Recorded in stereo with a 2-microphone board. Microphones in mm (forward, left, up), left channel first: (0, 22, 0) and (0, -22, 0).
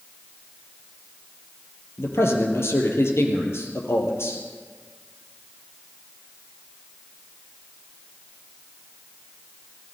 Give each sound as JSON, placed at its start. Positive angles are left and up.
{"t": 2.0, "sound": "a man speaking", "side_deg": 75, "distance_m": 4.5}